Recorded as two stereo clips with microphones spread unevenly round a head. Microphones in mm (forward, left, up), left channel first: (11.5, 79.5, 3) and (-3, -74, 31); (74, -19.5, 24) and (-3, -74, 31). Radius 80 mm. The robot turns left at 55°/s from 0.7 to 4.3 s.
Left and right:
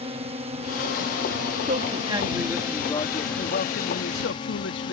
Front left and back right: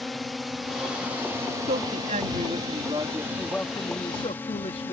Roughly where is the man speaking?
Behind right.